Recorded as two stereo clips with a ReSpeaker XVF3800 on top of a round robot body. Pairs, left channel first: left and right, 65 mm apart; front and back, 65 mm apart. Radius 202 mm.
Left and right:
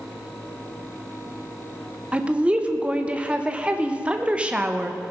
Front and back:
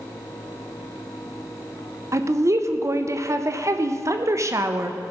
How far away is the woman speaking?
About 1.2 m.